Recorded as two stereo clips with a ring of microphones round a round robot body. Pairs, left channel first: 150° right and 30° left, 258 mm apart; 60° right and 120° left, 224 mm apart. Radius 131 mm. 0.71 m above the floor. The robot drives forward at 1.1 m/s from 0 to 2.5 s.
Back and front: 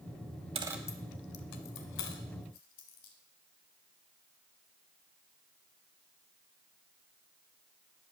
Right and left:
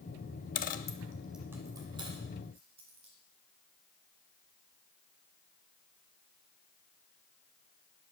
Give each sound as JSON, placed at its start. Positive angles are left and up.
{"t": 0.6, "sound": "a dropped coin", "azimuth_deg": -30, "distance_m": 0.6}